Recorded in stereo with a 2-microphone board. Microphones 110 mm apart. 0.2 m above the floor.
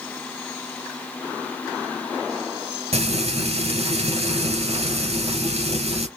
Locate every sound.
2.9 s frying: 70° right (ahead or behind), 1.8 m